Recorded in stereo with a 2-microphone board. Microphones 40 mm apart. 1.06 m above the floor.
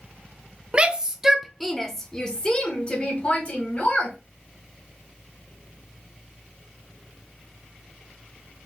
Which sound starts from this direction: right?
A shout, at 0.7 s.